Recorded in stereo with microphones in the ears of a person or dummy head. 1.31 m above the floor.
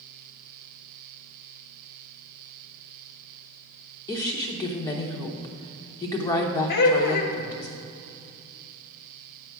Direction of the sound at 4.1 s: 20° left (ahead or behind).